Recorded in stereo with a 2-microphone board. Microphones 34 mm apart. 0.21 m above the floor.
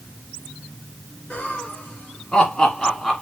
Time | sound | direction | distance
1.3 | laughter | 60° left (ahead or behind) | 2.5 m